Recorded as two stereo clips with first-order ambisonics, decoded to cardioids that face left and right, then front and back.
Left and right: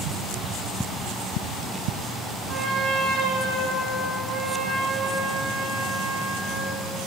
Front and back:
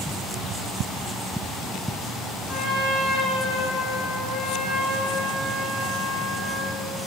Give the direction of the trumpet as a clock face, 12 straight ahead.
1 o'clock.